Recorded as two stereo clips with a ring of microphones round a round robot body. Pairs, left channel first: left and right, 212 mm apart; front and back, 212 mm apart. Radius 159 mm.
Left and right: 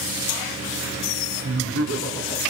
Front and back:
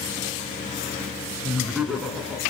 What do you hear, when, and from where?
1.4 s laughter: 95° right, 5.5 m